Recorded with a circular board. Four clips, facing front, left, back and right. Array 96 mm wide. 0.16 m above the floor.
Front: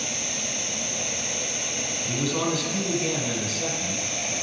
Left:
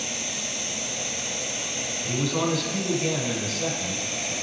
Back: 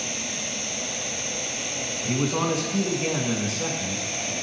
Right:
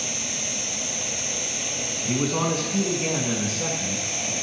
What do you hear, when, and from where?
0.0 s an insect: 70° right, 2.5 m
2.0 s a man speaking: 145° right, 1.6 m